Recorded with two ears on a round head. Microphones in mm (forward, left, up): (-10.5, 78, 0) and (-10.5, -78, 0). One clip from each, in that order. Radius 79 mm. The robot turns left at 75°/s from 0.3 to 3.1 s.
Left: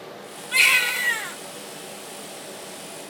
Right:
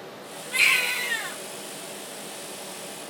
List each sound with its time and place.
0.5 s a baby crying: 125° left, 1.2 m; by 1.4 s 60° left, 1.2 m